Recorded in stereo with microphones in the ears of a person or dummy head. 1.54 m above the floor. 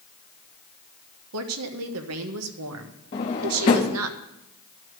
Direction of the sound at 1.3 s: 85° right.